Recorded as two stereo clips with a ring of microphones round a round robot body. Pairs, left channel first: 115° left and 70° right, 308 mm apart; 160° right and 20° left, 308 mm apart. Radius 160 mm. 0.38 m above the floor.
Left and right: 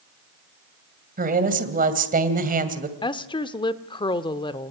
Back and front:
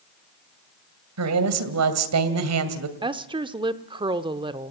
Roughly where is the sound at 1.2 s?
Ahead.